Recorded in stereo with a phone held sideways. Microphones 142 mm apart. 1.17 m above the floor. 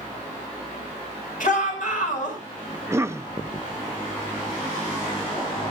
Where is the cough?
20° right (ahead or behind), 0.6 m.